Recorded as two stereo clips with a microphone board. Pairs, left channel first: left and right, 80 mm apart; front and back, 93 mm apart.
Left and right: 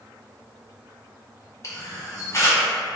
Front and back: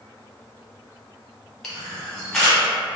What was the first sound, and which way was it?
A camera shutter, 85° left.